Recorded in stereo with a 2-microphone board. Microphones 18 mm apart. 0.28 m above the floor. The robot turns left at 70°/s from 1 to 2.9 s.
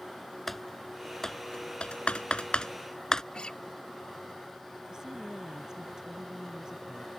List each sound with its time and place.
0.5 s typing on a keyboard: 10° left (ahead or behind); by 3.2 s 35° left (ahead or behind)
3.3 s a guitar: 55° left (ahead or behind)
4.9 s a woman speaking: 35° right (ahead or behind)